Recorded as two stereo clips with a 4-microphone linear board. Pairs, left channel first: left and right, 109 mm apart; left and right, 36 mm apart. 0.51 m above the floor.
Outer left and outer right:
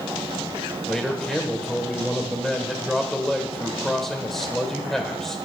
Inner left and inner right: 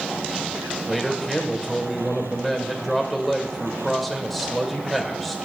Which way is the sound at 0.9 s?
5° left (ahead or behind).